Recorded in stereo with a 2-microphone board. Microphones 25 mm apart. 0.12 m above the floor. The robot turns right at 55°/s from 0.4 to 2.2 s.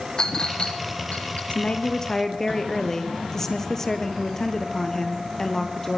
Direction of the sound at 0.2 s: 35° left (ahead or behind).